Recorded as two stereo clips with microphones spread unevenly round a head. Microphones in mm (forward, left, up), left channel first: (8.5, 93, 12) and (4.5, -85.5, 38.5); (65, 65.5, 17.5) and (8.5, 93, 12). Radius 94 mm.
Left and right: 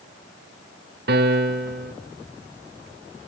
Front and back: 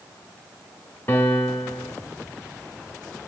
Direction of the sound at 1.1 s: 90° right.